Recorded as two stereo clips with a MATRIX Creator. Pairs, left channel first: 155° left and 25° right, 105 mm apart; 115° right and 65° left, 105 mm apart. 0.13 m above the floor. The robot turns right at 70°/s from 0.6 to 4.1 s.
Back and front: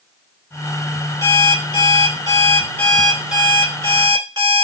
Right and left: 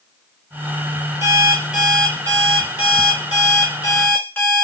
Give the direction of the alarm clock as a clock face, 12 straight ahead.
8 o'clock.